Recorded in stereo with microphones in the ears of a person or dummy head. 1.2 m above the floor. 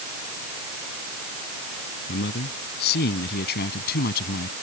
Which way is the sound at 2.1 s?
50° left (ahead or behind).